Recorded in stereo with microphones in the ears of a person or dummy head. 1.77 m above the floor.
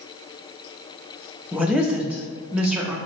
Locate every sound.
1.5 s a woman speaking: centre (ahead or behind), 0.6 m